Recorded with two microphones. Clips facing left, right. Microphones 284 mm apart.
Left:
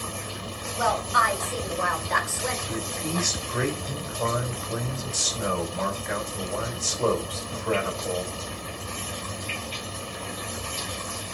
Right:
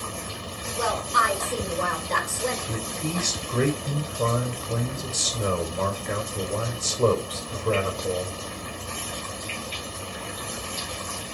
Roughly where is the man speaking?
Right.